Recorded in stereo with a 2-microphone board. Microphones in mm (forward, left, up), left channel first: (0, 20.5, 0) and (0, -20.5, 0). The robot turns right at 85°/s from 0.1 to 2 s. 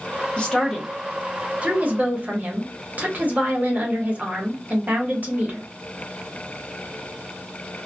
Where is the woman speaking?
135° left, 0.9 m; by 5.7 s 90° right, 0.9 m.